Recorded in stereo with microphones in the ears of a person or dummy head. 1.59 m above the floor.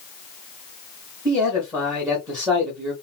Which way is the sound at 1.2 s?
20° right (ahead or behind).